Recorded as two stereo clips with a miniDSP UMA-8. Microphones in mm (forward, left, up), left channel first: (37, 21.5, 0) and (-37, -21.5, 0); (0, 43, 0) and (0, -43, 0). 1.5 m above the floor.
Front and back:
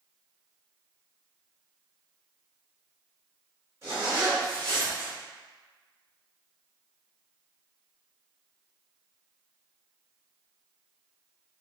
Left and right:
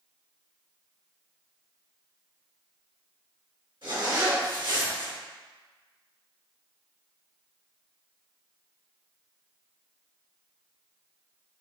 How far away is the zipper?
About 1.8 m.